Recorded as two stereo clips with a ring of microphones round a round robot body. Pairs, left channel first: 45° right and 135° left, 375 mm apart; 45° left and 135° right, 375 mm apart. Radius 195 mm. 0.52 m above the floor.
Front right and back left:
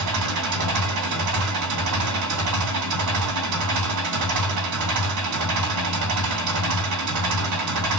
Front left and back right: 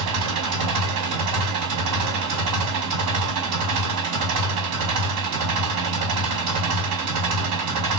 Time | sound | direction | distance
0.0 | an engine running | straight behind | 2 m